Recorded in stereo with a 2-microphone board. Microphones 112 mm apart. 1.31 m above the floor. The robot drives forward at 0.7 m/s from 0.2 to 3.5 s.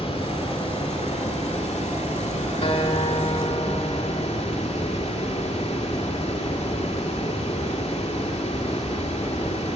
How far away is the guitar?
About 2 m.